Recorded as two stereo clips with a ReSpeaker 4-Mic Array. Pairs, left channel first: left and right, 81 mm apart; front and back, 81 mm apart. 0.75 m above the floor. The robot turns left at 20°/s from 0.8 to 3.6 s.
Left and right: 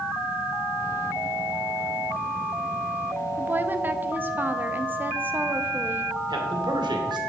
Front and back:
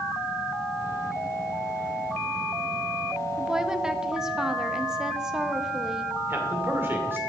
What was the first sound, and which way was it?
A woman speaking, 105° right.